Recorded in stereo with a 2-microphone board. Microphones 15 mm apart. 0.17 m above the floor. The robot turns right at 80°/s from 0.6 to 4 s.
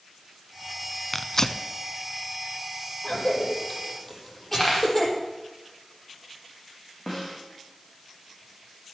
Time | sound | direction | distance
1.1 | tearing paper | 15° left (ahead or behind) | 0.8 m
3.0 | a cough | 75° left (ahead or behind) | 7 m
4.6 | a dropped coin | 30° left (ahead or behind) | 5 m
7.1 | a snare drum | 45° left (ahead or behind) | 6 m